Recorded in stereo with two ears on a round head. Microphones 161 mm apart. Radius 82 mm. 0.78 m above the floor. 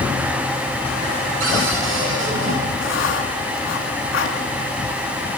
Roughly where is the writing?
Left.